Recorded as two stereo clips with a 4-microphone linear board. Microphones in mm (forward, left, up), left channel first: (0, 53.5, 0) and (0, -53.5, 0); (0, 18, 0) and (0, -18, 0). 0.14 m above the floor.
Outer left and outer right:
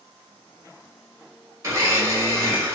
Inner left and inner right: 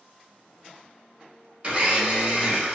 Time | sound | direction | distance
1.6 | a blender | 30° right (ahead or behind) | 0.9 m